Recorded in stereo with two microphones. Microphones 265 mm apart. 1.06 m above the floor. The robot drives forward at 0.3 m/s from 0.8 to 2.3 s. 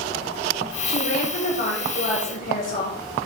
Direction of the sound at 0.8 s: 80° left.